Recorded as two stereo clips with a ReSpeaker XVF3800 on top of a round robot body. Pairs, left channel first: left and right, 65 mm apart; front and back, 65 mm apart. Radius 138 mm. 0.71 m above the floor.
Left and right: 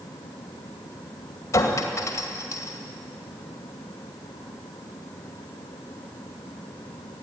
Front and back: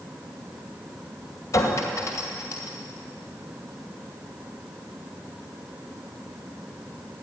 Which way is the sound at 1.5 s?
45° left.